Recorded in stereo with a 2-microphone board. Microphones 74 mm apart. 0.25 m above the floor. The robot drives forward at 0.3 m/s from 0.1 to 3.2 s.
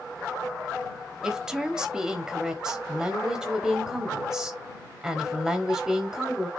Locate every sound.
1.2 s a woman speaking: 10° right (ahead or behind), 1.0 m